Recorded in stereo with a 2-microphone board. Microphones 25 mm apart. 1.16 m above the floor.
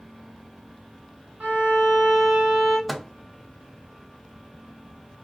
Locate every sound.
1.4 s a violin: 75° right (ahead or behind), 1.3 m
2.9 s a microwave: centre (ahead or behind), 0.5 m